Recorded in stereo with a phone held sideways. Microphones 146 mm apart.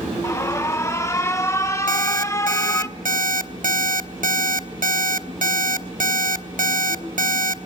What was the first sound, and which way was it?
An alarm, 20° left (ahead or behind).